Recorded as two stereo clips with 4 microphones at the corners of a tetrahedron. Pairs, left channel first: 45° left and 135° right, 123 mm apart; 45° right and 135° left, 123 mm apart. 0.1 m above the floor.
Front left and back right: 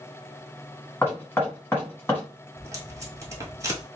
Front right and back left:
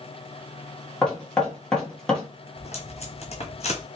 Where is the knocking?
25° left, 1.0 m.